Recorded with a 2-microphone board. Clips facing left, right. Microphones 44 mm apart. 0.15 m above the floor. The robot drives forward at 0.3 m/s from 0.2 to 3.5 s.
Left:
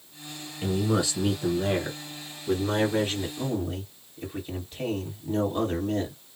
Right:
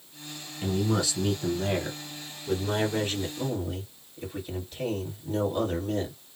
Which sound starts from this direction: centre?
A man speaking, at 0.6 s.